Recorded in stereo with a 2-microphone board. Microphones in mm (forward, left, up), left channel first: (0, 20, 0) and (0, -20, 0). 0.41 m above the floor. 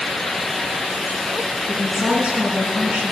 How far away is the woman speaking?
About 4 m.